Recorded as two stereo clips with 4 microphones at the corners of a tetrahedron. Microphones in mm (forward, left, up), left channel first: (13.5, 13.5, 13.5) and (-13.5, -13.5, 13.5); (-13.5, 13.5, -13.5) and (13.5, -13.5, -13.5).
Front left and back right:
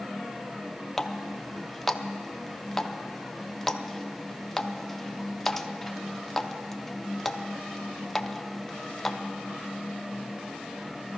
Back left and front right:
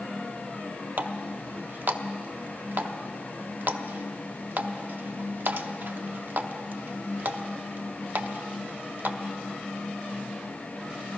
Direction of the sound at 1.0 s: 40° right.